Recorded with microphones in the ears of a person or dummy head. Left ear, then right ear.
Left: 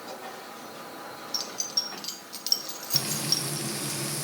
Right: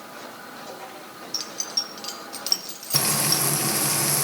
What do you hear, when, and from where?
1.3 s keys jangling: 5° left (ahead or behind), 0.8 m
2.9 s frying: 35° right (ahead or behind), 0.8 m